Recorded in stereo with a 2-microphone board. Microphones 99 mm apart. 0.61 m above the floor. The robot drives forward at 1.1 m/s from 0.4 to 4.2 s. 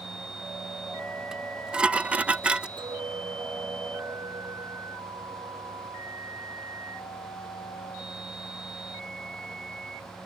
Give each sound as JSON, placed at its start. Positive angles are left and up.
{"t": 1.3, "sound": "dishes clattering", "side_deg": -5}
{"t": 2.8, "sound": "a clink", "side_deg": -55}